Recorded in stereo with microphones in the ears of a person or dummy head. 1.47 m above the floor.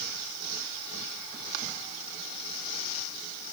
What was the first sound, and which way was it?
Only background noise.